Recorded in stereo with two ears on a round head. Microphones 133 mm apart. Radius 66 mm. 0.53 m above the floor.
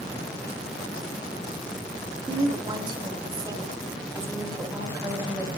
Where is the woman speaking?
35° right (ahead or behind), 2.0 m; by 5.6 s 15° right (ahead or behind), 4.5 m.